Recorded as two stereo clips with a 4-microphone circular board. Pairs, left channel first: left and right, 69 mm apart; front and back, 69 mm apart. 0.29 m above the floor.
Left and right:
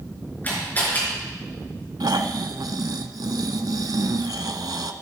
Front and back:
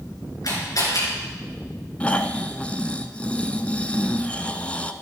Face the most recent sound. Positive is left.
turn(degrees=-70)